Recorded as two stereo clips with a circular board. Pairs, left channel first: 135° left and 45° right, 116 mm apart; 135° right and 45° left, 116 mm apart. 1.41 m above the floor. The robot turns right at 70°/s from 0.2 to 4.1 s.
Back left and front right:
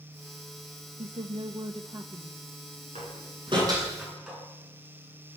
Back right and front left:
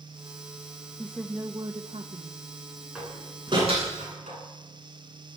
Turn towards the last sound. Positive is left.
turn(degrees=40)